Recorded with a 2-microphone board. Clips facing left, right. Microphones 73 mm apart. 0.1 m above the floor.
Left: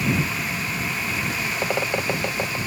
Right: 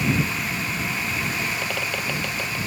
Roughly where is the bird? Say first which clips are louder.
Left 4 dB; left.